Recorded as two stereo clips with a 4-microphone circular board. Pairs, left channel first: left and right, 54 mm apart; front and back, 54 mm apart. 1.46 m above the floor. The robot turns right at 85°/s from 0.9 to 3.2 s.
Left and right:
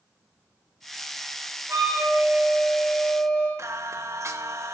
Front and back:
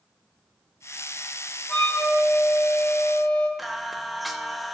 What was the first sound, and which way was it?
A flute, 55° right.